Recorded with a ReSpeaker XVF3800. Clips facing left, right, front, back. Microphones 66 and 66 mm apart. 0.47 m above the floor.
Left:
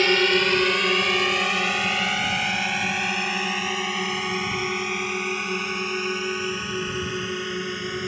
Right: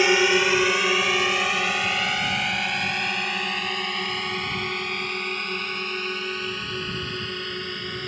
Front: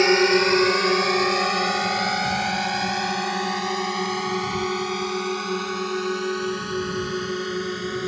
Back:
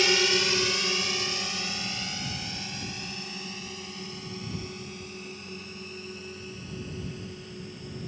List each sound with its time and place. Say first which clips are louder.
0.0 s a drone: right 1 dB, front 8 dB; 20° right; by 8.1 s 10° left